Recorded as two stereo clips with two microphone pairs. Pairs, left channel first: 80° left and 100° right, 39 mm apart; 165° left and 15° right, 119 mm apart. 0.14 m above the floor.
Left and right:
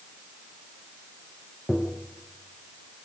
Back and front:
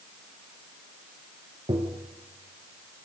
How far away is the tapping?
About 2.5 m.